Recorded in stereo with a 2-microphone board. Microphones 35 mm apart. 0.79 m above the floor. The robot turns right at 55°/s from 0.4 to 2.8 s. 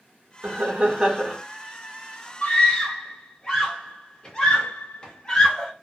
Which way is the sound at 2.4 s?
40° left (ahead or behind).